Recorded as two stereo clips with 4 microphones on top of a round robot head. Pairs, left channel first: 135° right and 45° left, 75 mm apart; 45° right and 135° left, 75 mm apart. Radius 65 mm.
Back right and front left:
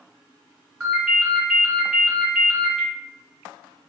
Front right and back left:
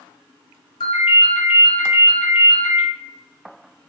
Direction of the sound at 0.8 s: 35° right.